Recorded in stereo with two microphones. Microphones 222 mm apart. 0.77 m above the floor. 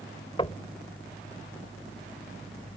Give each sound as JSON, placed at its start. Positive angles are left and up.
{"t": 0.4, "sound": "knocking", "side_deg": 25}